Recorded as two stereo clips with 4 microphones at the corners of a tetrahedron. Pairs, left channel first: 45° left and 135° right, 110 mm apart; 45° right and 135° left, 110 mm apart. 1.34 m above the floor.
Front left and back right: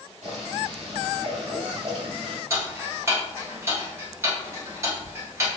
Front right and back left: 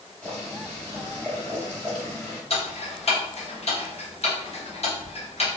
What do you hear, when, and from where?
0.2 s boiling: 125° right, 1.8 m
2.5 s ticking: 70° right, 1.0 m